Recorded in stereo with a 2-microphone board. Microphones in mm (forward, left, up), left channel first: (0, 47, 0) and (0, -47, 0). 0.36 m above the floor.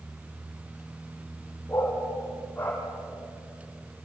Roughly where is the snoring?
No snoring in this recording.